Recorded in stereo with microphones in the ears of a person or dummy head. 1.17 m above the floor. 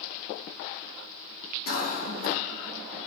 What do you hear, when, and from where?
1.7 s a cough: 50° left (ahead or behind), 2.0 m